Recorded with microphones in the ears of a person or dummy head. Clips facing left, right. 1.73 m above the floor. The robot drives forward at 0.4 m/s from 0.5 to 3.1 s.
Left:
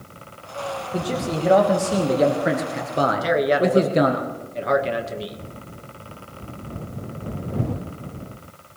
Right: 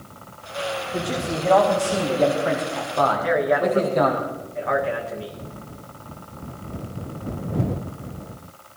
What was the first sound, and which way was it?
A man speaking, 20° left (ahead or behind).